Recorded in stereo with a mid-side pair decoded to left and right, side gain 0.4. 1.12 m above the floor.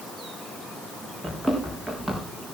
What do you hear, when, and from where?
1.2 s running footsteps: 5° right, 5 m